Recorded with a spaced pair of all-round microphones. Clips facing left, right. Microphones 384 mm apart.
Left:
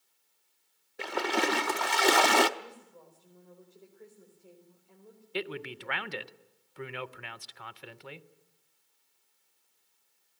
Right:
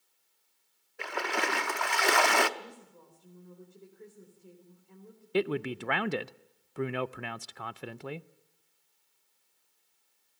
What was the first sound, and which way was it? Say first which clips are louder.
A splash: left 4 dB; 50° left (ahead or behind).